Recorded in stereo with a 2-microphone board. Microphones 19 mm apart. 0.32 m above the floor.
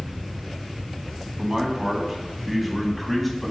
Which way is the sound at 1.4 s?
25° right (ahead or behind).